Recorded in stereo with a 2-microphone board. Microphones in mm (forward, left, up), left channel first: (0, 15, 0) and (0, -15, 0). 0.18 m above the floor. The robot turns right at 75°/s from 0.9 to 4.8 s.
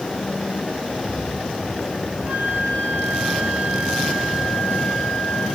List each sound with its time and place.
2.2 s a flute: 140° right, 4.5 m; by 5.5 s 50° left, 4.5 m